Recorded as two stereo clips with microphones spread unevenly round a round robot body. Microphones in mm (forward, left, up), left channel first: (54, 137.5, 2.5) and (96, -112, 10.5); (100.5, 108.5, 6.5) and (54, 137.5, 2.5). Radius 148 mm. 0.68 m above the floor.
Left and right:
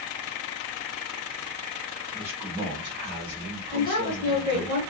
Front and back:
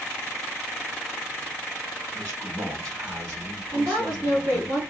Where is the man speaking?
165° right, 2 m; by 4.7 s 120° right, 1.7 m.